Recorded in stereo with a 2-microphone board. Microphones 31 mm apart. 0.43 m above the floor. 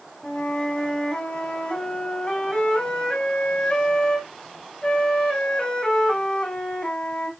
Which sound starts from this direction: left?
A flute, at 0.2 s.